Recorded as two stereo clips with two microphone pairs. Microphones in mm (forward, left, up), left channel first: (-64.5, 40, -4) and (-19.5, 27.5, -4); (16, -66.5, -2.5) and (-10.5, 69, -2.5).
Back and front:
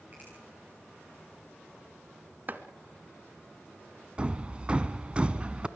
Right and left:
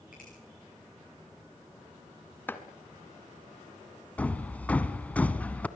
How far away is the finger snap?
About 9.5 m.